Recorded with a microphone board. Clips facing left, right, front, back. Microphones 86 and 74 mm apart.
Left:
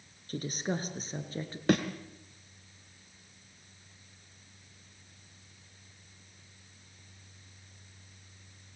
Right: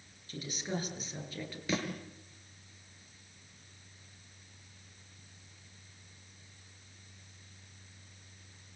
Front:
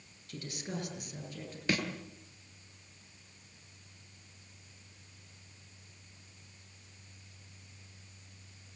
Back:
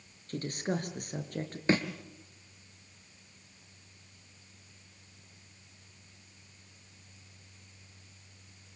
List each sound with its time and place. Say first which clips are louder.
0.3 s a woman speaking: left 4 dB, back 7 dB; 135° left, 5 m; by 1.6 s 150° left, 5.5 m
1.7 s a thud: left 8 dB, back 5 dB; 120° left, 3.5 m